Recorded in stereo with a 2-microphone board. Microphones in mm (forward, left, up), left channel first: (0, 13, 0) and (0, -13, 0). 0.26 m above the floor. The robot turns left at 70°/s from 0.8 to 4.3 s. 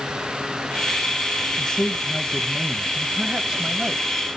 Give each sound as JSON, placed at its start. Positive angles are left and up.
{"t": 1.6, "sound": "a man speaking", "azimuth_deg": 60, "distance_m": 1.3}